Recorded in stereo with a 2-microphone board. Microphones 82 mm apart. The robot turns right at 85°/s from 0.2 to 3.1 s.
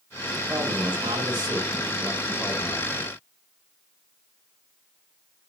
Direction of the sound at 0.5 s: 145° right.